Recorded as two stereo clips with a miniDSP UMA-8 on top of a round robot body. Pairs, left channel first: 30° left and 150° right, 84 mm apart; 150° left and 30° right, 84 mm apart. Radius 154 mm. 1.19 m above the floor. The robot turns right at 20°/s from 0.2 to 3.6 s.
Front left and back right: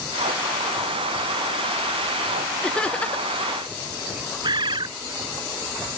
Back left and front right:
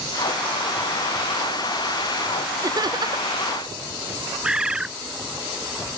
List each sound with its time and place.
2.6 s laughter: 50° right; by 3.4 s 35° right
4.4 s a bird: 110° right